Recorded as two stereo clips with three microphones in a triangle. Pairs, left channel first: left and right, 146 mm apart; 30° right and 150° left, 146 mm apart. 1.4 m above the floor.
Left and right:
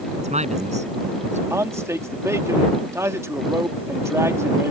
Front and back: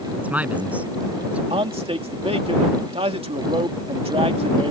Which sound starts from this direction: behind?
A man speaking, at 1.5 s.